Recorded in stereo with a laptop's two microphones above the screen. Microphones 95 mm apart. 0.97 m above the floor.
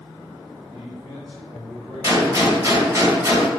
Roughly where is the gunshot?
Right.